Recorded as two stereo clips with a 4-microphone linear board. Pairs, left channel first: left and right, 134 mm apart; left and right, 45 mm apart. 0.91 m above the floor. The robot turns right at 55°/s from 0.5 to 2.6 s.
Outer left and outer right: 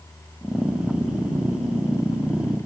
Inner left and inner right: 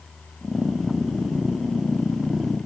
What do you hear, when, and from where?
Only background noise.